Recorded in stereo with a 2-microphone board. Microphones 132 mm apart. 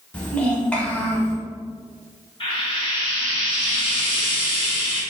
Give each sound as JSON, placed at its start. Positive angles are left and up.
{"t": 0.1, "sound": "a child speaking", "side_deg": 10, "distance_m": 1.1}
{"t": 2.4, "sound": "frying", "side_deg": 45, "distance_m": 1.0}